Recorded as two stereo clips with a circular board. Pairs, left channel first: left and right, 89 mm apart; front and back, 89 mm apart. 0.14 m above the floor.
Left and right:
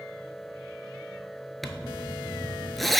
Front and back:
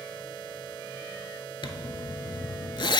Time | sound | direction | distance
1.6 | a zipper | straight ahead | 0.5 m